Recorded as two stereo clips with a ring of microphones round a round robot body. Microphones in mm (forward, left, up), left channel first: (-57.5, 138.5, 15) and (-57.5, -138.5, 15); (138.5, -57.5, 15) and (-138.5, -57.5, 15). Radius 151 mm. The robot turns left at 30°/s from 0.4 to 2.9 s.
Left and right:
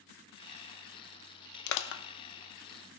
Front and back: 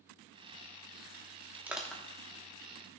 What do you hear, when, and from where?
1.7 s crushing: 95° left, 0.5 m; by 2.0 s 85° left, 0.5 m